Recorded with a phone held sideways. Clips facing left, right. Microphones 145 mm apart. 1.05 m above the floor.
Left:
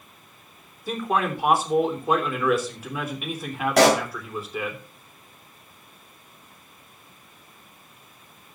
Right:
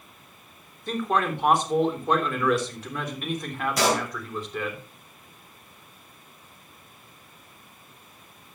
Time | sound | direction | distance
0.9 | a man speaking | 5° left (ahead or behind) | 3 m
3.8 | a pop | 75° left (ahead or behind) | 2.0 m